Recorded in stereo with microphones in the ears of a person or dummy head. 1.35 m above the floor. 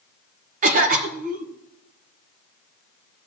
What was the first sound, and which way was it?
A cough, 40° right (ahead or behind).